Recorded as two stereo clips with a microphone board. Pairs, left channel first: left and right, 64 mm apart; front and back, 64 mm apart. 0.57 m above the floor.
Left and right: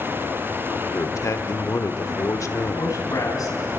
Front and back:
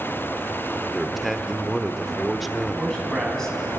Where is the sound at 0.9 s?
90° left, 1.1 m.